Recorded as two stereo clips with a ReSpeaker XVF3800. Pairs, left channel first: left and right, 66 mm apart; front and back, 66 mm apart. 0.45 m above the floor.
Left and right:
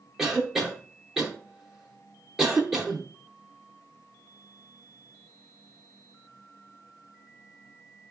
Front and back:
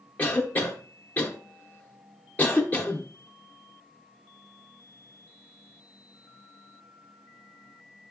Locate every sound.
0.2 s a cough: 10° right, 0.7 m